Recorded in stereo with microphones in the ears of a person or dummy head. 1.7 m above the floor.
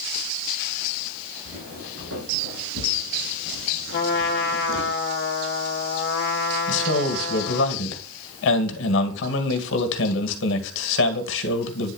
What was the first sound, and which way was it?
Footsteps, 70° right (ahead or behind).